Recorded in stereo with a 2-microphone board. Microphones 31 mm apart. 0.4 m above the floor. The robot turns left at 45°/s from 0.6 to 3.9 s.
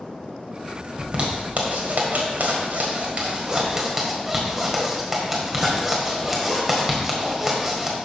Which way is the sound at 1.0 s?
30° right (ahead or behind).